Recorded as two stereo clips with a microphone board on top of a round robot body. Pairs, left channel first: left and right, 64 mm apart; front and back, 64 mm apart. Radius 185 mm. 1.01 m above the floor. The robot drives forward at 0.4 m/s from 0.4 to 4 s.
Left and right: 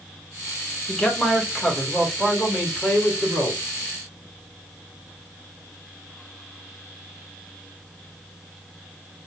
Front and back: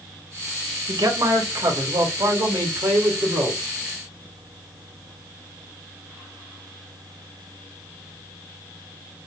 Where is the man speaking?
170° left, 1.0 m; by 3.6 s 175° left, 2 m.